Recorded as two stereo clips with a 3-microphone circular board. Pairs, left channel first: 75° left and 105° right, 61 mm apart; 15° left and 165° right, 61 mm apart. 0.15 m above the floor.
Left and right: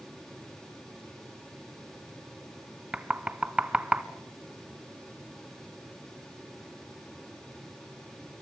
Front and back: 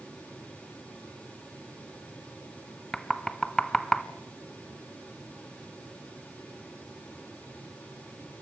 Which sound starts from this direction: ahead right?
Knocking, at 2.9 s.